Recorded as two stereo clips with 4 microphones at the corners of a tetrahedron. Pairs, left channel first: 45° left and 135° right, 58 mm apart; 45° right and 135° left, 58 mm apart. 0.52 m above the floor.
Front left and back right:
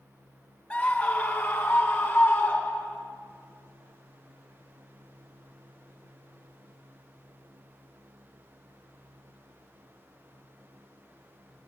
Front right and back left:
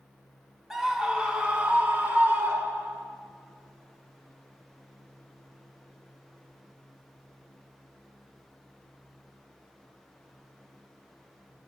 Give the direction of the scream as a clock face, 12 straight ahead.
10 o'clock.